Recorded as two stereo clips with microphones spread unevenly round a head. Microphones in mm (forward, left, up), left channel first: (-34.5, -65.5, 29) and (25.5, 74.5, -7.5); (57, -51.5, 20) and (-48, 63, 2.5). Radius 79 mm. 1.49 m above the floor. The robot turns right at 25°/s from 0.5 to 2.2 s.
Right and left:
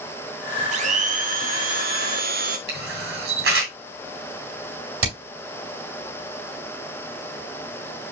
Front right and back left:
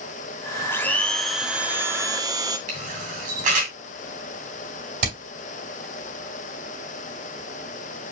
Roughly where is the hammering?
Left.